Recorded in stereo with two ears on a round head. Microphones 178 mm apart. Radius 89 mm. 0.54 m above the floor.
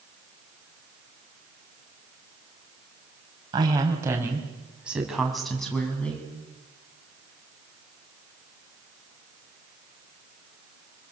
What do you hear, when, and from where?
3.5 s a woman speaking: 20° right (ahead or behind), 3.5 m; by 6.3 s 5° left (ahead or behind), 4.5 m